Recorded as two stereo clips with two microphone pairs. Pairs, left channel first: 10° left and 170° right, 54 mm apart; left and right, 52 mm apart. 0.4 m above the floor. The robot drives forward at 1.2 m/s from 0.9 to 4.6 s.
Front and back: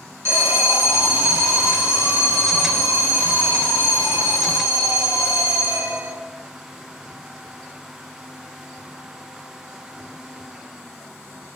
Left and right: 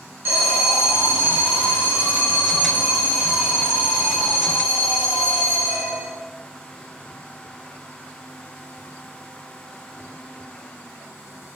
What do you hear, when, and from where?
0.2 s an alarm: 135° right, 3.5 m; by 6.1 s 160° right, 7.5 m